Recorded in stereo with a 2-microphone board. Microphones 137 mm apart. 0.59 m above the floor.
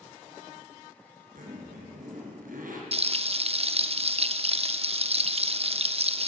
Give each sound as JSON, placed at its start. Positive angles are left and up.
{"t": 1.4, "sound": "a zipper", "side_deg": -85, "distance_m": 3.5}
{"t": 2.9, "sound": "frying", "side_deg": -45, "distance_m": 0.7}